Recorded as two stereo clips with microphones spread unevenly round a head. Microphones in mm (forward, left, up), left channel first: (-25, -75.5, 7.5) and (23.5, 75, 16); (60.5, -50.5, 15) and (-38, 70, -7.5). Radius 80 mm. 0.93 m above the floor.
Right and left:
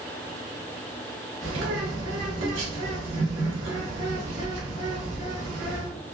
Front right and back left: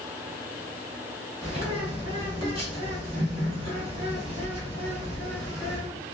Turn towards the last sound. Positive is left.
turn(degrees=75)